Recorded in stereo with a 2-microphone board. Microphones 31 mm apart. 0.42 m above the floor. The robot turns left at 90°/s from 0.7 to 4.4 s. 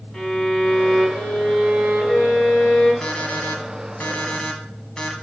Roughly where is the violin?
Ahead.